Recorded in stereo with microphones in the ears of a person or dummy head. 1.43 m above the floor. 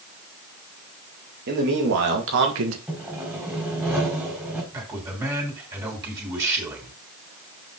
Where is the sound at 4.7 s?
20° right (ahead or behind), 3 m.